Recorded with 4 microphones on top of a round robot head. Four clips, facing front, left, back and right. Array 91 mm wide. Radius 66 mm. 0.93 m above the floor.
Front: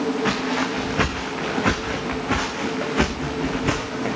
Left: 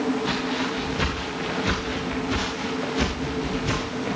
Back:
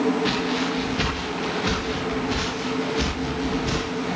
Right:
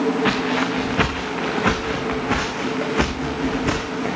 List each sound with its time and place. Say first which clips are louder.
0.2 s footsteps: right 5 dB, front 1 dB; 65° right, 4.5 m; by 4.2 s 50° right, 8 m